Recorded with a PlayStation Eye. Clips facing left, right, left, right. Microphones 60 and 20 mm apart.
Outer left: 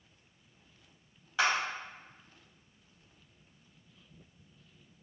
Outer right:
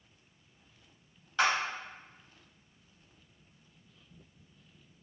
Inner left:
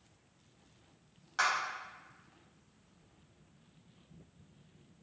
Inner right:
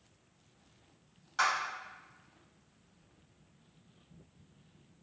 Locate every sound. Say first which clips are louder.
1.4 s a clap: outer right 1 dB, inner right 1 dB; 10° left (ahead or behind), 1.4 m